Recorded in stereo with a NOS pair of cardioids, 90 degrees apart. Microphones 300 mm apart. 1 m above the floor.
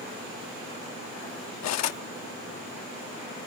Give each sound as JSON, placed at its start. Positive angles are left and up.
{"t": 1.6, "sound": "cutlery clinking", "azimuth_deg": 65}